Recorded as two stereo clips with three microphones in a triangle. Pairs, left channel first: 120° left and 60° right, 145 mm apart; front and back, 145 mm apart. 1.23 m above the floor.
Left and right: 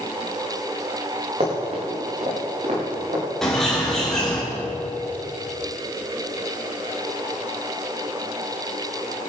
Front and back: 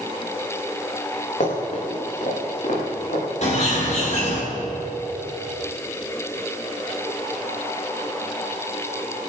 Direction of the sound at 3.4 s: 35° left.